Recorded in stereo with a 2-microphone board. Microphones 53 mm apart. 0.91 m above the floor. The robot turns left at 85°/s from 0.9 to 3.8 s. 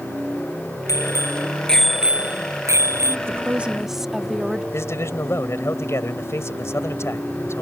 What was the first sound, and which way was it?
A bicycle bell, 80° left.